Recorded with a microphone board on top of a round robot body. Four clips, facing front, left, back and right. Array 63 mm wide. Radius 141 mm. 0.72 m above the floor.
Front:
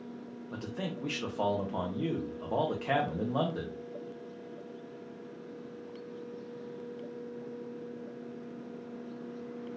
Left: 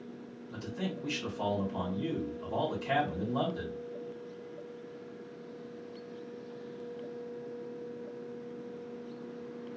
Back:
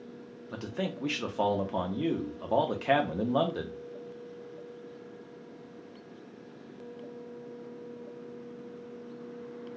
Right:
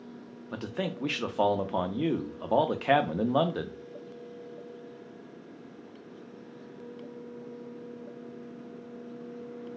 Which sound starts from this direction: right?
A man speaking, at 0.5 s.